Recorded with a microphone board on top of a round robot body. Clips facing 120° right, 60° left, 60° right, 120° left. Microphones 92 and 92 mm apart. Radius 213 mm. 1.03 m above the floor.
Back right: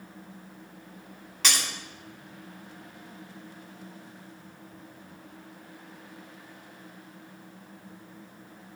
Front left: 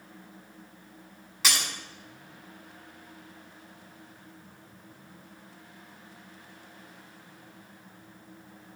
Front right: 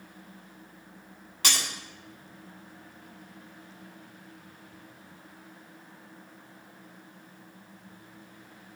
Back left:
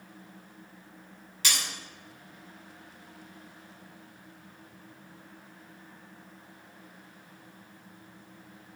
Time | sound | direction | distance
1.4 | breaking glass | 25° right | 2 m